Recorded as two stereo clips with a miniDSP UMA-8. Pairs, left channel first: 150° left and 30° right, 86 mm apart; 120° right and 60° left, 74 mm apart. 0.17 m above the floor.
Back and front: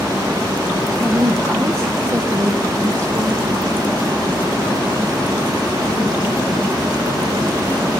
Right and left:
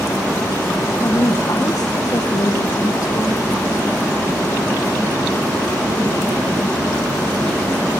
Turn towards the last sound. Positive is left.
turn(degrees=-80)